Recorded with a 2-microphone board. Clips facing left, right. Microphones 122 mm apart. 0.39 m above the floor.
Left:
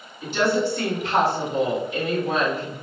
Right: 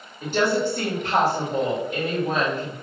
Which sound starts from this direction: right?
A woman speaking, at 0.2 s.